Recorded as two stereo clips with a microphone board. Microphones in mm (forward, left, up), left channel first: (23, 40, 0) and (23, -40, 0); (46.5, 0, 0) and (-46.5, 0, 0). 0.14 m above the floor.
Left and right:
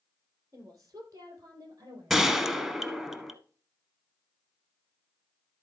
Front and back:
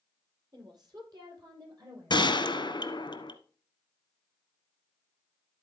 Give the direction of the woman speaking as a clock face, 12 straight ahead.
5 o'clock.